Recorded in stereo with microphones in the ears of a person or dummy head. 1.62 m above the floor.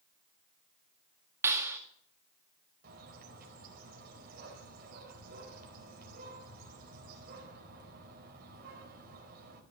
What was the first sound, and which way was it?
A clap, 10° right (ahead or behind).